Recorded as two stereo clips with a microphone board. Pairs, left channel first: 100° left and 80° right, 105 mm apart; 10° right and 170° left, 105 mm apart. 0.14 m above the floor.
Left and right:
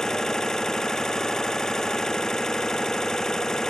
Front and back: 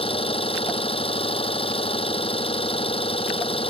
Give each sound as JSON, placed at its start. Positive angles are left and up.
{"t": 0.0, "sound": "an engine running", "azimuth_deg": 15}